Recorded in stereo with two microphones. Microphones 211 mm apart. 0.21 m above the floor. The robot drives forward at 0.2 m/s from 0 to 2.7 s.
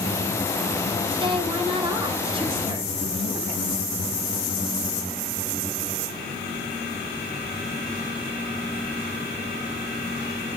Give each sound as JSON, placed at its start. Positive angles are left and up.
{"t": 1.1, "sound": "a woman speaking", "side_deg": -25, "distance_m": 1.5}